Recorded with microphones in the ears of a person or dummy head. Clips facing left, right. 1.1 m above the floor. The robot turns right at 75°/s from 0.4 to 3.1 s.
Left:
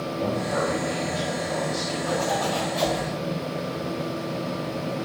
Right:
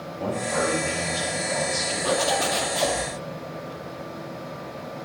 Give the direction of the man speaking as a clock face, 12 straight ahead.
7 o'clock.